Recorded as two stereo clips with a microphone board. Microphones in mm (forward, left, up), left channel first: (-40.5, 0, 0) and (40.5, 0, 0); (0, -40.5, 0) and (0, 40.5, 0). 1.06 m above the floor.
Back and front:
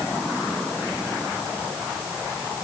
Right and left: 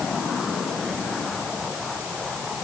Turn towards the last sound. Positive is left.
No sound to turn to.